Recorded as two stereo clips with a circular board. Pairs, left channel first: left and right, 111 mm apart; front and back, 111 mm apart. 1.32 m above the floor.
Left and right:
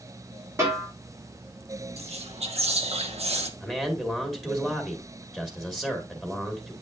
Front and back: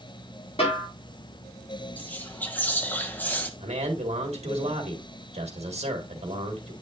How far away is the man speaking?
About 1.7 m.